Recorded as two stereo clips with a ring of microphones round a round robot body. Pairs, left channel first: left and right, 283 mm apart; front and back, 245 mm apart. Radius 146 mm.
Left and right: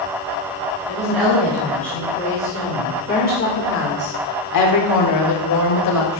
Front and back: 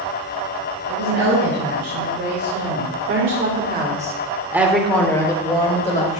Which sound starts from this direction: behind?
A woman speaking, at 0.9 s.